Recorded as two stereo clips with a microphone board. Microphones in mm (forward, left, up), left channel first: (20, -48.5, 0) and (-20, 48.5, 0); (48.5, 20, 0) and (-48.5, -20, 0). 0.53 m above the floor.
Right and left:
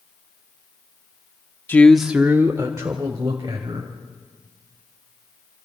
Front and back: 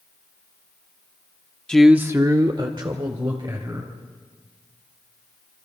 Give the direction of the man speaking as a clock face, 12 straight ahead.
2 o'clock.